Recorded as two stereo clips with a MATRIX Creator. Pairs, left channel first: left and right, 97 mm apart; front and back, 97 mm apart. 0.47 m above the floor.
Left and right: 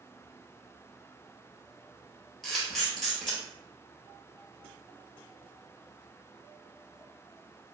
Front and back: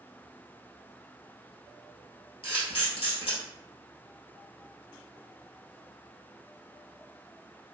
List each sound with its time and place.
2.4 s a camera shutter: 5° left, 1.5 m